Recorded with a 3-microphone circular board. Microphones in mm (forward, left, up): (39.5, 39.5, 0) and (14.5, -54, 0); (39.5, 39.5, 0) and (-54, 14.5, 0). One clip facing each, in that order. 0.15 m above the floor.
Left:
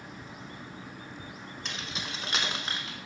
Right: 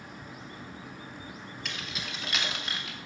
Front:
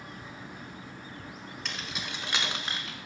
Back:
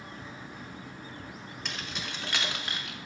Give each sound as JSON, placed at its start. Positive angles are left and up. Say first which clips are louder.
{"t": 1.6, "sound": "keys jangling", "louder": "left 1 dB, even", "azimuth_deg": 105, "distance_m": 1.1}